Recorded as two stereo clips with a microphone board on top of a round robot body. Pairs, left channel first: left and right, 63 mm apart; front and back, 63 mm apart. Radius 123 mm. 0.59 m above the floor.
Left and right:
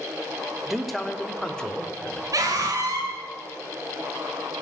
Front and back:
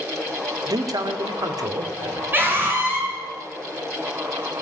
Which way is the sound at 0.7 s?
175° right.